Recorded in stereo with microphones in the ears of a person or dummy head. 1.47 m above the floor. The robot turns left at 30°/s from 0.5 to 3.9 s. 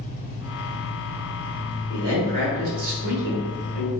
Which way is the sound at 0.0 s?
75° left.